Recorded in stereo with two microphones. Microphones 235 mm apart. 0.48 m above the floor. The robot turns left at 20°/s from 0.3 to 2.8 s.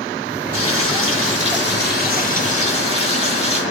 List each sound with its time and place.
0.5 s frying: 70° left, 7 m; by 3.6 s 25° left, 7 m